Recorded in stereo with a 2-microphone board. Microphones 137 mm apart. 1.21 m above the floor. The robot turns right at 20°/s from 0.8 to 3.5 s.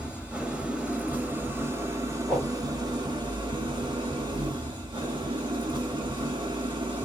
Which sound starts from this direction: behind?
An engine running, at 0.0 s.